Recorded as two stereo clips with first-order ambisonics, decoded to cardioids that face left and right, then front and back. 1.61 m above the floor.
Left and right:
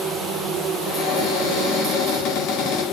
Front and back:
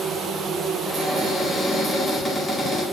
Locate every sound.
0.8 s a cupboard door: 75° left, 4 m